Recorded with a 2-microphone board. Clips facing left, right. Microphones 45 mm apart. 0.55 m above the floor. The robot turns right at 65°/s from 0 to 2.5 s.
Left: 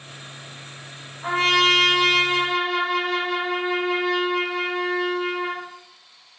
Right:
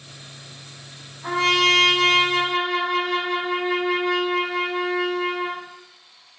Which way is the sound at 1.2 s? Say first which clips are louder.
Even; 130° left.